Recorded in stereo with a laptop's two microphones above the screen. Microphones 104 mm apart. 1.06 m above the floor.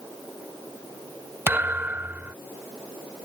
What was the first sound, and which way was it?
A thud, 20° right (ahead or behind).